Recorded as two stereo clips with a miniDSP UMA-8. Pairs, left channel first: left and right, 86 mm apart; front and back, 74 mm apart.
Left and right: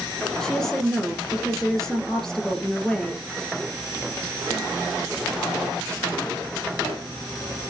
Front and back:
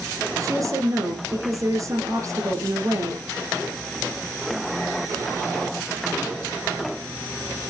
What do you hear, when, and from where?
0.4 s a woman speaking: 170° left, 2.5 m